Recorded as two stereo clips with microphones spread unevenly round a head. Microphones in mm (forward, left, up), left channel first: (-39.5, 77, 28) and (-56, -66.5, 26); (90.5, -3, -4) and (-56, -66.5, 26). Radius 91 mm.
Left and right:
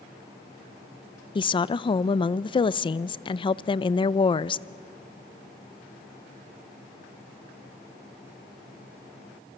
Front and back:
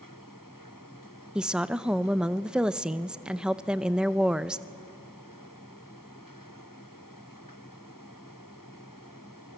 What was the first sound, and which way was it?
A woman speaking, 105° left.